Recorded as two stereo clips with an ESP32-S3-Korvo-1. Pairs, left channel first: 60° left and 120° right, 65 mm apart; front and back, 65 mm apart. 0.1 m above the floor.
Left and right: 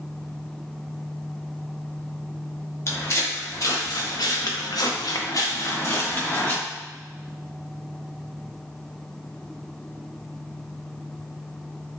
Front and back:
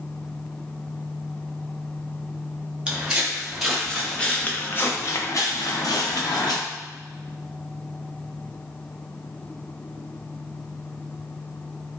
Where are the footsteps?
100° left, 1.5 m; by 6.6 s straight ahead, 1.3 m.